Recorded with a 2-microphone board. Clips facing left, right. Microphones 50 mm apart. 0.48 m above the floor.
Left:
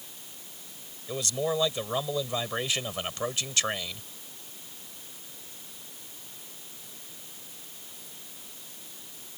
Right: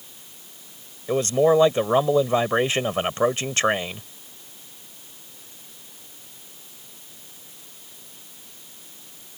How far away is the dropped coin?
I don't hear a dropped coin.